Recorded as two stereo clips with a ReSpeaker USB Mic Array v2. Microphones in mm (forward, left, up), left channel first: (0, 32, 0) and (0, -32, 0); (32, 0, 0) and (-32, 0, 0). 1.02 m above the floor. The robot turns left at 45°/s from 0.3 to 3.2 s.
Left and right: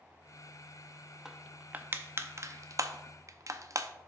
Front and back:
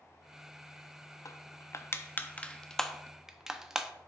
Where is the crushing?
10° right, 0.5 m; by 3.9 s 100° right, 0.5 m.